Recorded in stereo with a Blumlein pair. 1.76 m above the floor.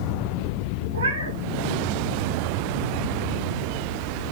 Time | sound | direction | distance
0.9 | a cat meowing | 70° right | 4 m